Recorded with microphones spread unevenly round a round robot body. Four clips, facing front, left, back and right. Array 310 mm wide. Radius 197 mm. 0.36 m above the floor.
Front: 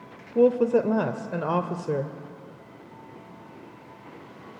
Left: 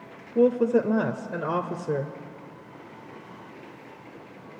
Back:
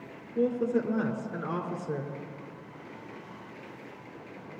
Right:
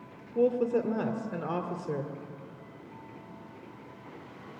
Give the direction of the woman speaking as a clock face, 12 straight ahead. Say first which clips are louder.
Left 5 dB, front 8 dB; 11 o'clock.